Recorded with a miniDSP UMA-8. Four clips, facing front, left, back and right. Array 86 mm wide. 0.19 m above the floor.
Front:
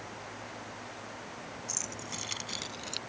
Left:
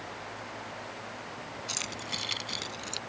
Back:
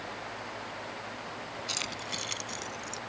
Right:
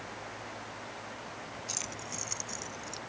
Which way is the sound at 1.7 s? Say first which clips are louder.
Left 3 dB, back 4 dB; 150° left.